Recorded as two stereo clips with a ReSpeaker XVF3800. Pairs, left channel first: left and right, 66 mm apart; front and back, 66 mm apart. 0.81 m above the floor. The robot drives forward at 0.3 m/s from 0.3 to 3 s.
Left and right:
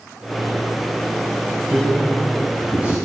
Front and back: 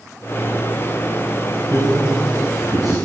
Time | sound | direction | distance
1.7 | a man speaking | 155° right | 7.5 m